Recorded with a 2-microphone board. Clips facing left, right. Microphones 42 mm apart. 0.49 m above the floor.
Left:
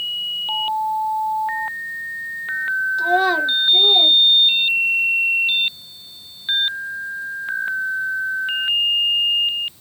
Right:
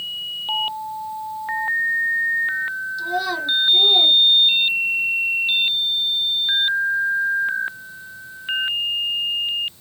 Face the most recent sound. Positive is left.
turn(degrees=-25)  # may be behind; listen again after turning